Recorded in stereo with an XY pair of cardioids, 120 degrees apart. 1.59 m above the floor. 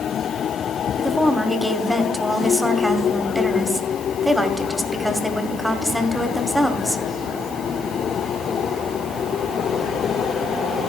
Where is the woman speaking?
Straight ahead, 1.0 m.